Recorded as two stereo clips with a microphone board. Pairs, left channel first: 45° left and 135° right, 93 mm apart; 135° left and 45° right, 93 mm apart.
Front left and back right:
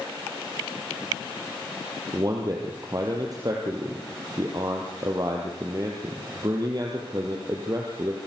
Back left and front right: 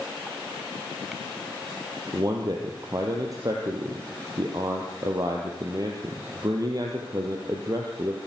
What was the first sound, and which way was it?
A man speaking, 90° right.